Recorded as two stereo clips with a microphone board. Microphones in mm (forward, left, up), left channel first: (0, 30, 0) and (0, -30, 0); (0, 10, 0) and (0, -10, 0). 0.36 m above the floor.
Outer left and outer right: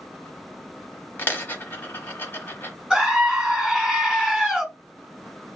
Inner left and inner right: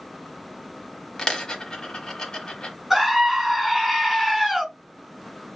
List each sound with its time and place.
1.2 s a dropped coin: 35° left (ahead or behind), 0.7 m
2.9 s a scream: 5° right (ahead or behind), 1.2 m